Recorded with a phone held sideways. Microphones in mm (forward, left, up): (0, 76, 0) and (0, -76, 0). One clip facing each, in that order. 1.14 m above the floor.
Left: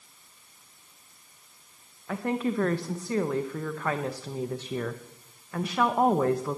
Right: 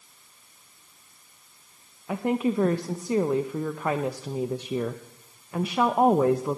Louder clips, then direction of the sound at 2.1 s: Right 3 dB; 15° right (ahead or behind).